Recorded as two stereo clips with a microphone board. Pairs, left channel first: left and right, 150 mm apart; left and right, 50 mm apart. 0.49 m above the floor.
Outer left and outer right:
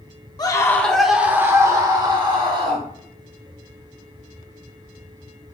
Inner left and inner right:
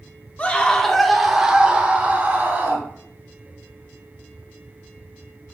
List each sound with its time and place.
0.4 s a scream: 25° left (ahead or behind), 0.7 m; by 2.9 s 35° right (ahead or behind), 1.6 m